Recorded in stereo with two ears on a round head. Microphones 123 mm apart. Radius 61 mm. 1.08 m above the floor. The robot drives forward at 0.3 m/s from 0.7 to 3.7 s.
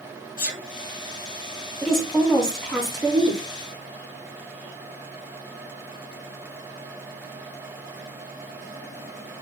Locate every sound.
0.4 s a sneeze: 70° left (ahead or behind), 1.6 m
1.8 s a woman speaking: 5° left (ahead or behind), 1.7 m